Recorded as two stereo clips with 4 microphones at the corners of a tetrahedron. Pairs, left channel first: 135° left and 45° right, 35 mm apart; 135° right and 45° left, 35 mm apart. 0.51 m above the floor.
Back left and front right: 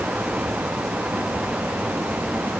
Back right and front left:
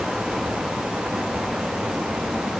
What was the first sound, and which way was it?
Only background noise.